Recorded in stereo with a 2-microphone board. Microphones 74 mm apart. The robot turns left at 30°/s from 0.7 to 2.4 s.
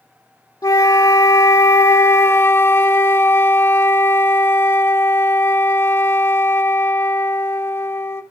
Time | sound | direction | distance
0.6 | a flute | 95° left | 0.7 m